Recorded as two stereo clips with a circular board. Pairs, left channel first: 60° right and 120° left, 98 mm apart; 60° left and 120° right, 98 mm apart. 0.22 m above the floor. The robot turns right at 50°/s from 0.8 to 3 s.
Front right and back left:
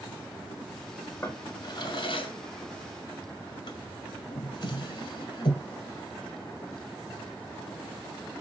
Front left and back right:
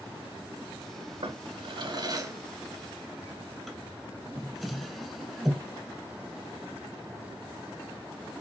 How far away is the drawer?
About 1.0 m.